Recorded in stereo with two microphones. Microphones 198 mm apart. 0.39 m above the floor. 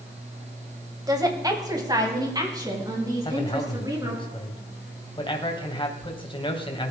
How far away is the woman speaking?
About 2 m.